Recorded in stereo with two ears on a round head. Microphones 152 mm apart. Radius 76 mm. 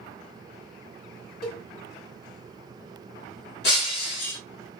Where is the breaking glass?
65° left (ahead or behind), 1.5 m.